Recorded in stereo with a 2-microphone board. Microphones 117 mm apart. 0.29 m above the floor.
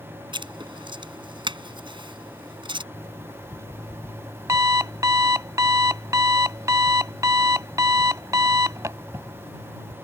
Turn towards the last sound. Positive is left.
turn(degrees=-25)  # may be behind; listen again after turning